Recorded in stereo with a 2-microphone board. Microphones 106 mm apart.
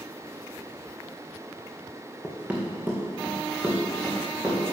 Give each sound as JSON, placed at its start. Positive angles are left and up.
{"t": 2.2, "sound": "running footsteps", "side_deg": -10, "distance_m": 1.7}